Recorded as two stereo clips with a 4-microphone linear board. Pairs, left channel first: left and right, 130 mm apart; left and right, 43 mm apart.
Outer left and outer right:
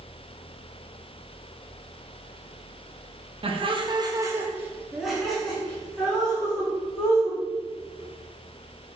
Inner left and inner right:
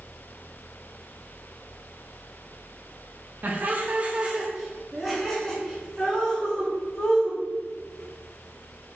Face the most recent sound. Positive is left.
turn(degrees=15)  # may be behind; listen again after turning